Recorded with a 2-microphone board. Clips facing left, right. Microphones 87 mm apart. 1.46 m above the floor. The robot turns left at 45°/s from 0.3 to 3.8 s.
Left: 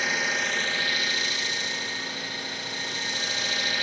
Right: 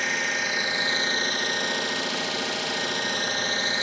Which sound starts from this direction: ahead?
An engine running, at 0.0 s.